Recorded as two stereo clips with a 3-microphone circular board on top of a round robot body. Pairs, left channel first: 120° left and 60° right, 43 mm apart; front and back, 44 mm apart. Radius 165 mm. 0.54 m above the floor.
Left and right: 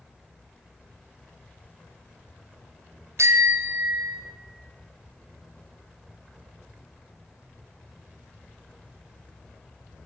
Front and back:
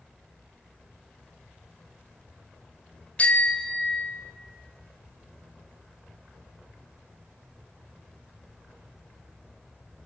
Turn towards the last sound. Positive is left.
turn(degrees=-75)